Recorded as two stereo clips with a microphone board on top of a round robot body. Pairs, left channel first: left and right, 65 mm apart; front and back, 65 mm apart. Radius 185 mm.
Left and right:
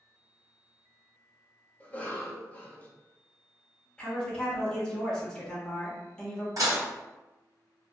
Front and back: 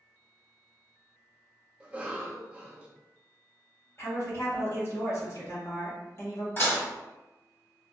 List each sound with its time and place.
1.8 s a cough: 130° left, 1.0 m
4.0 s a woman speaking: 15° left, 1.5 m
6.6 s dishes clattering: 60° right, 1.6 m